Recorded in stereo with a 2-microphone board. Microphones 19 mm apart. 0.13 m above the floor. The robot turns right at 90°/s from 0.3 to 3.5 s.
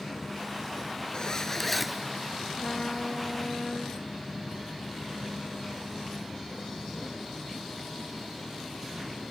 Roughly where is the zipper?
Behind left.